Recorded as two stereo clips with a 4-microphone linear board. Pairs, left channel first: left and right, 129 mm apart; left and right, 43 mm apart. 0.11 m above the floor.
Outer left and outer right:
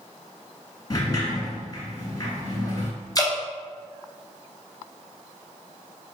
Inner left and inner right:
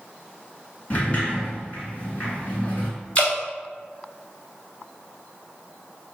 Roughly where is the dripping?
Left.